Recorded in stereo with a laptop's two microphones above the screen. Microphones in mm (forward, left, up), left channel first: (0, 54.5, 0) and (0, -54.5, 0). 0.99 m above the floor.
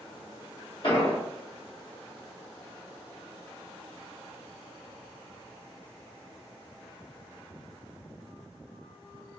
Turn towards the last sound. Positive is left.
turn(degrees=55)  # may be behind; listen again after turning